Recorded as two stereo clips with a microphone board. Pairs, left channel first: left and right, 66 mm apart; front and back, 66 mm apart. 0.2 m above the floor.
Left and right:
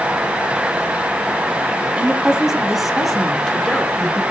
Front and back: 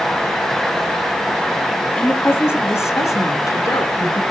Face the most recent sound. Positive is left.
turn(degrees=10)